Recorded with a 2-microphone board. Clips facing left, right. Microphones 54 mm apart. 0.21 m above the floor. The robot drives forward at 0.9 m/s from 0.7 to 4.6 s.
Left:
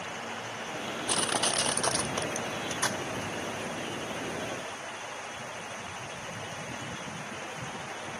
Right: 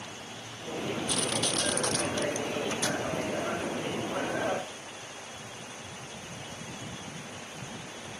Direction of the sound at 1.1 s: 55° left (ahead or behind).